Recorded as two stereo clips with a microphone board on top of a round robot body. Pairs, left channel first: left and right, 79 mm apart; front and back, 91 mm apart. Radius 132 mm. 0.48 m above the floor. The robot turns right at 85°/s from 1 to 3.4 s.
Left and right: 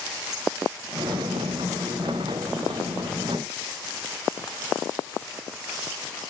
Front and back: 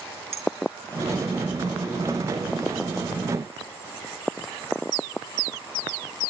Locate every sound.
0.3 s a clink: 175° right, 5.5 m